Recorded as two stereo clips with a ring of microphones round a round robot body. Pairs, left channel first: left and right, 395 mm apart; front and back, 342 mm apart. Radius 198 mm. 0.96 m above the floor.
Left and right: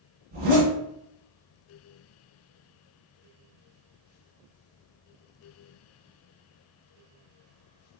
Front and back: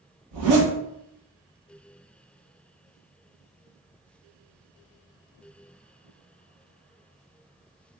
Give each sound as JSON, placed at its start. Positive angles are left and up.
{"t": 0.3, "sound": "a zipper", "azimuth_deg": -155, "distance_m": 1.5}